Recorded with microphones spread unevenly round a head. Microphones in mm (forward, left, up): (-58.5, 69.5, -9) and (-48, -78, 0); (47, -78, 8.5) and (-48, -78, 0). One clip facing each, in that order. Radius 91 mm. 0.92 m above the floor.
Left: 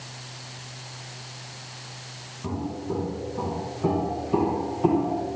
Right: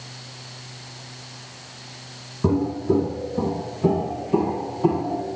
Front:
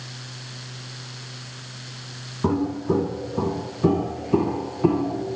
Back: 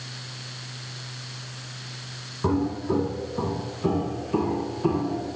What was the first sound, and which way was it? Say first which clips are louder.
Footsteps: right 10 dB, front 2 dB; 65° right.